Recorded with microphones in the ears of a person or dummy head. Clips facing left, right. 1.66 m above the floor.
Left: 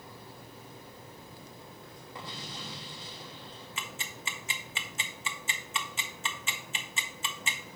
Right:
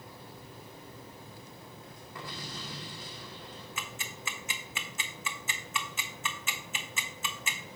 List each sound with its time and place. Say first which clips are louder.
2.1 s an explosion: right 1 dB; 15° left (ahead or behind), 1.1 m
3.8 s ticking: left 2 dB; 30° left (ahead or behind), 0.8 m